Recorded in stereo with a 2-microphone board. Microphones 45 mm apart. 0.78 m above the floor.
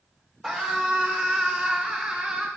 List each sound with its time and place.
0.4 s a scream: 5° right (ahead or behind), 2.5 m; by 2.5 s 15° right (ahead or behind), 1.6 m